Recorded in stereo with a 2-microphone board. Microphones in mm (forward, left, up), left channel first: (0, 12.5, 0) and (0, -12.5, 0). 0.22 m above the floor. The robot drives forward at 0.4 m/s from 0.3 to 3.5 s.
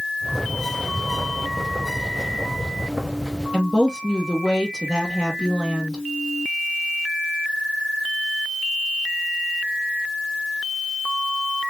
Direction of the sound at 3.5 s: 20° left (ahead or behind).